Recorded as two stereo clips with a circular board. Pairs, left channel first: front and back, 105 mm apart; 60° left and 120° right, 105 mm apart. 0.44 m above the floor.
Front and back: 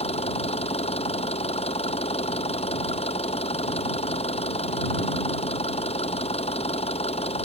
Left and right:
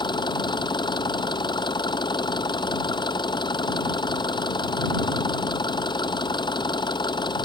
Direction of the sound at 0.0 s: 15° left.